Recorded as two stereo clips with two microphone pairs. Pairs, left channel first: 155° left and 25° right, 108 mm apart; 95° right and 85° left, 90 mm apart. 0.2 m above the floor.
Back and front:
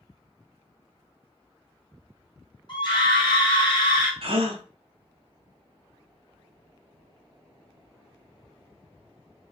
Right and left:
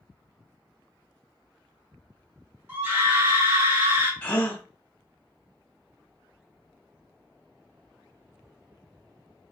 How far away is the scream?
About 2.5 m.